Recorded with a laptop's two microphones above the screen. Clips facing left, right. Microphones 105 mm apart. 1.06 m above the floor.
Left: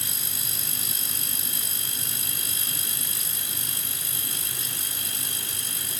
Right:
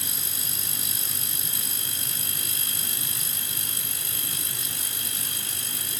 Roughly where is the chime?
I don't hear a chime.